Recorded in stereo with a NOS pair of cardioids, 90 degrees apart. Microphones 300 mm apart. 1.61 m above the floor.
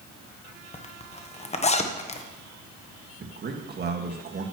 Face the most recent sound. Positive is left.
turn(degrees=-35)